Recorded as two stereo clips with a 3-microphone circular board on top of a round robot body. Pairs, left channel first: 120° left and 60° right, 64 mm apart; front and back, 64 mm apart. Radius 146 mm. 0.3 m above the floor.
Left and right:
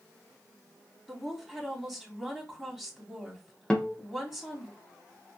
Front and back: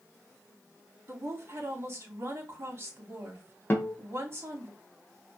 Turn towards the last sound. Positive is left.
turn(degrees=45)